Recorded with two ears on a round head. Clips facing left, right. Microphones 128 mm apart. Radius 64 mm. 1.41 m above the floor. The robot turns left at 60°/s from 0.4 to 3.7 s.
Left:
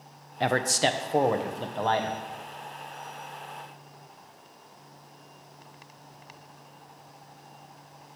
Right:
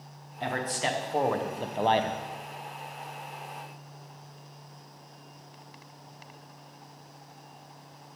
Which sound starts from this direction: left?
A man speaking, at 0.4 s.